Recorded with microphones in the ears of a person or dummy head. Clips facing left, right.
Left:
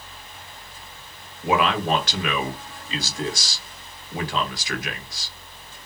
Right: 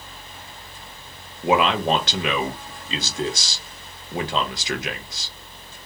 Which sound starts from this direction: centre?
A man speaking, at 1.4 s.